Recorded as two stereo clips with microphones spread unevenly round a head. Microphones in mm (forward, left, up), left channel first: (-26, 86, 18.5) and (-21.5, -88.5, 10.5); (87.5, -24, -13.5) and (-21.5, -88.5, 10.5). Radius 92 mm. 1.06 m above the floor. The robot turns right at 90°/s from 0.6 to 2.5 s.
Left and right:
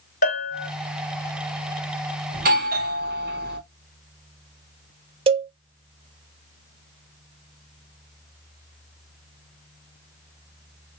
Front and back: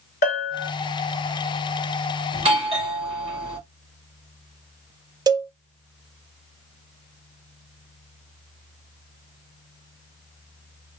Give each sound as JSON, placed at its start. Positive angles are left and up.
{"t": 0.2, "sound": "a bell", "azimuth_deg": 50, "distance_m": 2.0}
{"t": 2.3, "sound": "a doorbell", "azimuth_deg": -120, "distance_m": 1.6}
{"t": 5.3, "sound": "a cowbell", "azimuth_deg": -95, "distance_m": 0.5}